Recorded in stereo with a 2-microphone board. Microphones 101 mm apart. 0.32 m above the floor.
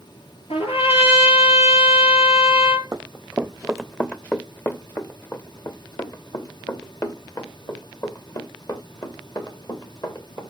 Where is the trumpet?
75° left (ahead or behind), 6 m.